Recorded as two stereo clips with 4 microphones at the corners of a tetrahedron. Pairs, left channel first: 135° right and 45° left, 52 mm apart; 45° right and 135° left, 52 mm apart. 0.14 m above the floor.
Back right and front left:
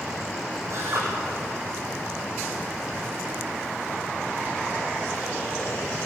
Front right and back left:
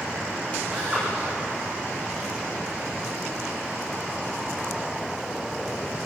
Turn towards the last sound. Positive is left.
turn(degrees=70)